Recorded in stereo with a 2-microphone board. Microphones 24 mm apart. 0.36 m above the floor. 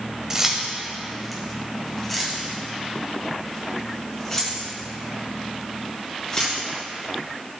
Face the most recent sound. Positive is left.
turn(degrees=30)  # may be behind; listen again after turning